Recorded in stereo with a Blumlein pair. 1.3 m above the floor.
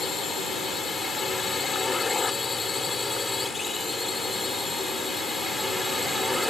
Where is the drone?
15° left; by 6.5 s 5° left.